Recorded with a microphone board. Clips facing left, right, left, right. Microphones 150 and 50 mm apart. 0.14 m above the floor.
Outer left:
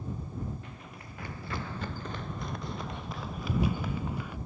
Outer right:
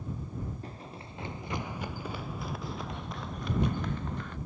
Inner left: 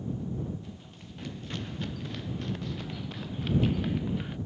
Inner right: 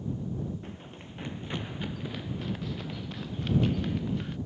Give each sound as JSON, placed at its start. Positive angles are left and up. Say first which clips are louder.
{"t": 0.6, "sound": "running footsteps", "louder": "outer right 3 dB, inner right 3 dB", "side_deg": -35}